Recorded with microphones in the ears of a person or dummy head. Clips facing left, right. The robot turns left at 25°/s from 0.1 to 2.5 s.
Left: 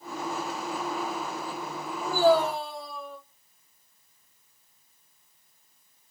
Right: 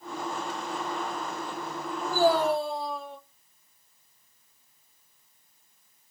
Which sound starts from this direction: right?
A man speaking, at 2.0 s.